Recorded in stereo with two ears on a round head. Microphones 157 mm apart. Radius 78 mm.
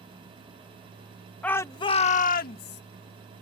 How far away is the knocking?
I don't hear knocking.